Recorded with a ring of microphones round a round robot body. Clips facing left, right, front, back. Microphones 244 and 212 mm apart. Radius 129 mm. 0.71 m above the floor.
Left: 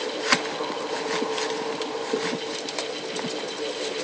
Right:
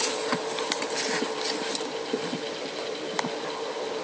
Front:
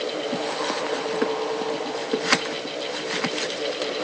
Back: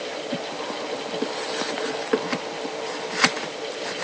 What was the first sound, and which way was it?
Only background noise.